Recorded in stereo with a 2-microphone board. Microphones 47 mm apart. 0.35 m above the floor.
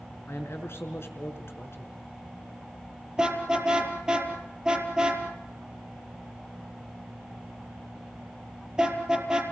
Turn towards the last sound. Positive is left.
turn(degrees=-20)  # may be behind; listen again after turning